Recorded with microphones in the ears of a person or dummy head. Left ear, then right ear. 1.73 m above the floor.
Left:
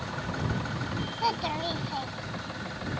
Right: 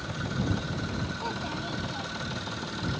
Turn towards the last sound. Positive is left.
turn(degrees=30)  # may be behind; listen again after turning